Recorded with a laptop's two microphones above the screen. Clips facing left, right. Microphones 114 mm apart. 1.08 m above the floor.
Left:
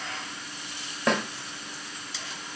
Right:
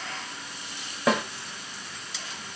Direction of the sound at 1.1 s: 5° right (ahead or behind).